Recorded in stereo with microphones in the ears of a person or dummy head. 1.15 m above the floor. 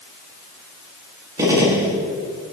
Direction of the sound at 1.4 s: 20° right (ahead or behind).